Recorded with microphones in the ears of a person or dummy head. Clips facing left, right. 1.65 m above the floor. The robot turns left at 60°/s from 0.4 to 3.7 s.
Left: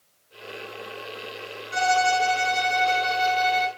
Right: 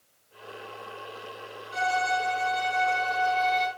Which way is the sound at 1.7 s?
120° left.